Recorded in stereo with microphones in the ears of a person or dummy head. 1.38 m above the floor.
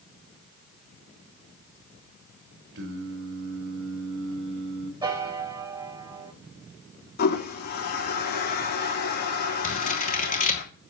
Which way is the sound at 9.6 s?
40° left (ahead or behind).